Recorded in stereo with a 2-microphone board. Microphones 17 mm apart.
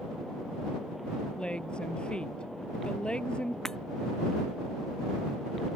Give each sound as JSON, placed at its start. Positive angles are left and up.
{"t": 1.4, "sound": "a woman speaking", "side_deg": 65}
{"t": 3.6, "sound": "breaking glass", "side_deg": 25}